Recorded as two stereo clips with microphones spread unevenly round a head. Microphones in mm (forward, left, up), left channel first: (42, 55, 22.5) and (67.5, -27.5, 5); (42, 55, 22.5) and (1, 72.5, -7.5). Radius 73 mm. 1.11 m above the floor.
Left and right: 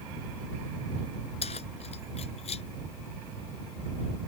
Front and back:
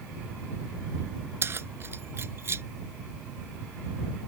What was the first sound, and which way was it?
Keys jangling, 125° left.